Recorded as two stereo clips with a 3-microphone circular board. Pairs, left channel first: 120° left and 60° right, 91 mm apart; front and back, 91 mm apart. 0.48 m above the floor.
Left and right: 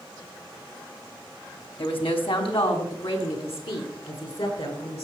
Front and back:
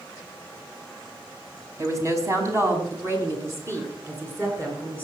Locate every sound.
1.8 s a woman speaking: 125° left, 3 m; by 5.0 s 115° left, 7.5 m